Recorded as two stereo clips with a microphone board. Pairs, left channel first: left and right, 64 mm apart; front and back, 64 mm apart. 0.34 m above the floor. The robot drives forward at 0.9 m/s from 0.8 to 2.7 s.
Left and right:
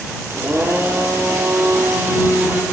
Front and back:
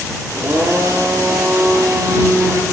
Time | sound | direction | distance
0.3 | a blender | 140° right | 6 m